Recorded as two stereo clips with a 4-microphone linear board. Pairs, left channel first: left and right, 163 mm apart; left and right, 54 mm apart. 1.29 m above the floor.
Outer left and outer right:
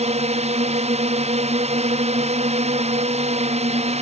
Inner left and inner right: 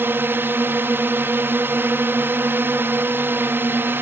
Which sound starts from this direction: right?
A drone, at 0.0 s.